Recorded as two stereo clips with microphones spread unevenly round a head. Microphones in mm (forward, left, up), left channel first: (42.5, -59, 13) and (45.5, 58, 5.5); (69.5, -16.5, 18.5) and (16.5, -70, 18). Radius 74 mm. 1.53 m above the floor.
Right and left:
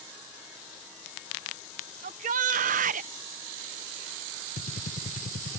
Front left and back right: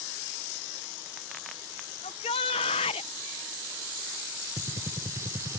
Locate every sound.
2.0 s a shout: 80° left
4.6 s a gunshot: 85° right